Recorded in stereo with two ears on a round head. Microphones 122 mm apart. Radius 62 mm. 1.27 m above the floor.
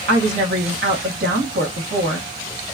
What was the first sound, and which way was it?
A woman speaking, 80° right.